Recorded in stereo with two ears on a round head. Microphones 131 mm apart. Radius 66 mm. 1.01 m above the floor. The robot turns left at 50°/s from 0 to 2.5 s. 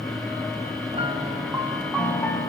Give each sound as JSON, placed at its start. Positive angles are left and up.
{"t": 0.9, "sound": "a piano", "azimuth_deg": -130, "distance_m": 3.0}